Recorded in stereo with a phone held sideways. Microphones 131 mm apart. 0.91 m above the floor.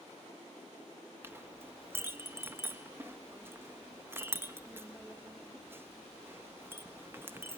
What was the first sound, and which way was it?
A clink, 20° right (ahead or behind).